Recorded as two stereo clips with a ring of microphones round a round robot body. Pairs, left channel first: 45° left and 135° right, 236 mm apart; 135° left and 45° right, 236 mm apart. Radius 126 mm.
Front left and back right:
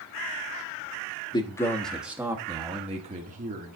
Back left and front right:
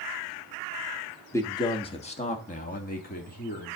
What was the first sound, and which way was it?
A man speaking, 75° left.